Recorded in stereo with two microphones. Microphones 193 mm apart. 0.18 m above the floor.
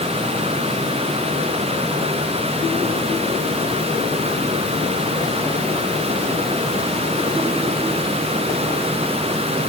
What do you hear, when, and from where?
Only background noise.